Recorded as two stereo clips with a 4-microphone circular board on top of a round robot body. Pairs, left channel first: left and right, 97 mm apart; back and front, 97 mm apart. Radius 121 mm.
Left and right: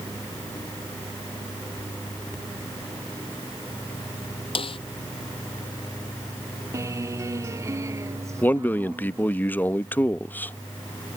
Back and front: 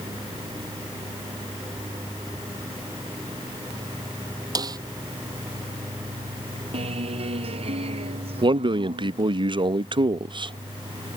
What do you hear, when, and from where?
4.5 s a snare drum: 55° left
6.7 s a guitar: 30° right
8.4 s a man speaking: 20° left